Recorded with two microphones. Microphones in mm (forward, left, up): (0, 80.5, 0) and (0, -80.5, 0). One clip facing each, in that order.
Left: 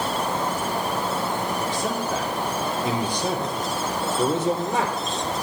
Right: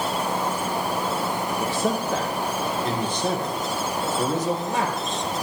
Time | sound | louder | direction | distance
1.6 | a man speaking | right 2 dB | 10° right (ahead or behind) | 3 m